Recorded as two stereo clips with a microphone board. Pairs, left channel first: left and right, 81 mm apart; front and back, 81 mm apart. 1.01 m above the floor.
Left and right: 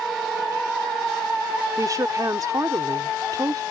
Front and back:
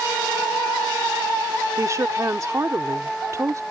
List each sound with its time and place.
1.8 s a woman speaking: 130° right